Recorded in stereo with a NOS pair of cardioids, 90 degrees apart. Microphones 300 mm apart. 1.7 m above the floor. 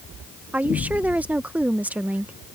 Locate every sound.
0.5 s a woman speaking: 5° right